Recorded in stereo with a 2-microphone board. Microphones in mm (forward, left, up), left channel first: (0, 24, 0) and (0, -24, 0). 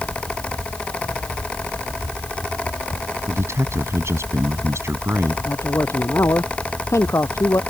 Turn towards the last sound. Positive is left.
turn(degrees=80)